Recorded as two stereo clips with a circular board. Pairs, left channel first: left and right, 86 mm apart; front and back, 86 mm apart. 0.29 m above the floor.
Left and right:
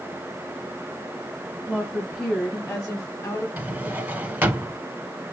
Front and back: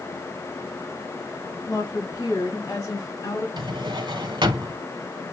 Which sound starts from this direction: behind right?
A drawer, at 3.6 s.